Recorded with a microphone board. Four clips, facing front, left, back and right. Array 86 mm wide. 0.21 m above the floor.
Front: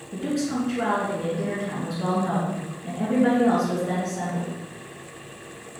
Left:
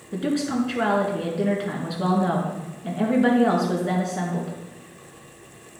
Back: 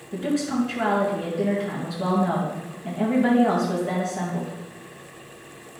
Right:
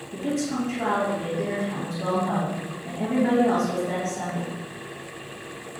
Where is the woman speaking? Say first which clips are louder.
Left 3 dB, back 2 dB; 95° left, 2.5 m.